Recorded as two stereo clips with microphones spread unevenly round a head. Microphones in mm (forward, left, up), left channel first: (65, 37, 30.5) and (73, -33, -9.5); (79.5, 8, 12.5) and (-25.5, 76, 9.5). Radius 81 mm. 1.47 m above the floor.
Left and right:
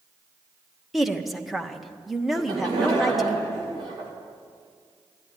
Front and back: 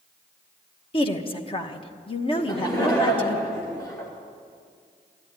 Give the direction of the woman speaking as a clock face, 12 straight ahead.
12 o'clock.